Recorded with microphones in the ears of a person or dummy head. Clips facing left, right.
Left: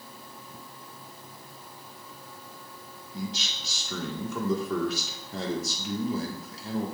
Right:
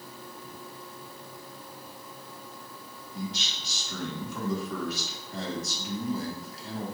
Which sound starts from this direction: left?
A man speaking, at 3.1 s.